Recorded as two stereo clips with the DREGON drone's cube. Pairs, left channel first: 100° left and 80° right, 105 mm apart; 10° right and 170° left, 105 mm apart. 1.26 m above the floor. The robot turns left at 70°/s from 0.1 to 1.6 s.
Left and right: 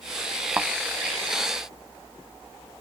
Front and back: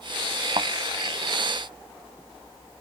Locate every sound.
0.6 s a thud: 150° right; by 0.7 s 160° right